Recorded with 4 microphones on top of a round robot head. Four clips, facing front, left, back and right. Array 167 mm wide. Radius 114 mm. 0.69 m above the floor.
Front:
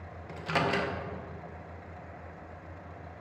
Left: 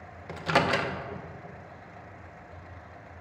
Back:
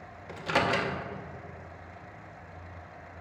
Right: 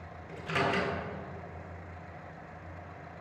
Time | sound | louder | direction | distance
0.3 | a microwave | left 5 dB, back 2 dB | 95° left | 0.8 m